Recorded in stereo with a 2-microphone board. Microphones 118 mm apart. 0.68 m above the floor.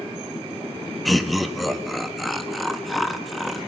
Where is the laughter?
Centre (ahead or behind), 1.0 m.